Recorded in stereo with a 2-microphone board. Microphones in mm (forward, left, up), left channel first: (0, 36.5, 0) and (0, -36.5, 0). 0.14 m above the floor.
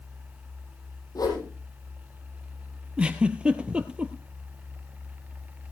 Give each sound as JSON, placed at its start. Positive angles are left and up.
{"t": 1.1, "sound": "a whoosh", "side_deg": 65, "distance_m": 4.5}
{"t": 3.0, "sound": "a giggle", "side_deg": -15, "distance_m": 1.1}